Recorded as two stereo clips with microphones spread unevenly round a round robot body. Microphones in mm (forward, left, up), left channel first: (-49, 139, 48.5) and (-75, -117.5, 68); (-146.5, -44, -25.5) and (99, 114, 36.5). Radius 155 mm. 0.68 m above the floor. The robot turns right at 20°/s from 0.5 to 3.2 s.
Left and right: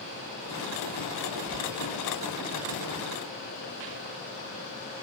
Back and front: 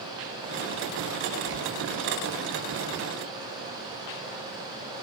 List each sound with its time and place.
1.5 s whispering: 25° right, 0.8 m; by 1.6 s 20° right, 0.8 m